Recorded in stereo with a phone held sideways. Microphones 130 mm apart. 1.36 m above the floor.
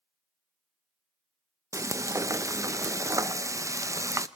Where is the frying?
25° right (ahead or behind), 0.6 m.